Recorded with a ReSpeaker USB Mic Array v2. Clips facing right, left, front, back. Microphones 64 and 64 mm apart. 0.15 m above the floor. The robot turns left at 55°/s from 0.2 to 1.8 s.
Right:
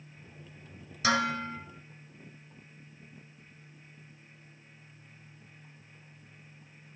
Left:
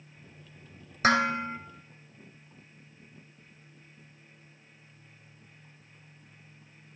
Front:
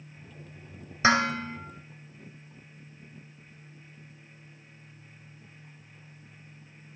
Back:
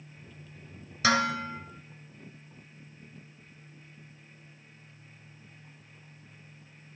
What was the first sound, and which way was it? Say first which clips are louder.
Dishes clattering: left 4 dB, front 2 dB; 55° left.